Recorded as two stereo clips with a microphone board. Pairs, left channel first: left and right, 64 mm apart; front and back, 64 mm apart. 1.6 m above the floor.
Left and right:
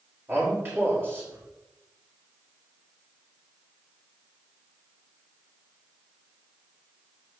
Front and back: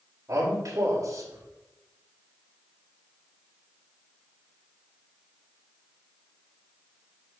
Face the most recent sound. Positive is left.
turn(degrees=-145)